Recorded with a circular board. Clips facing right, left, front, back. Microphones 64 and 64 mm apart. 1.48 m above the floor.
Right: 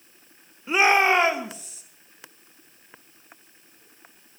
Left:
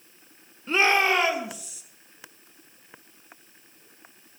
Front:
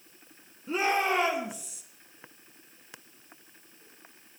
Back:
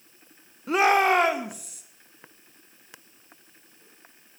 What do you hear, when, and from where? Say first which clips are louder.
0.7 s a shout: right 3 dB, back 7 dB; 170° right, 1.2 m; by 1.8 s 145° right, 2.5 m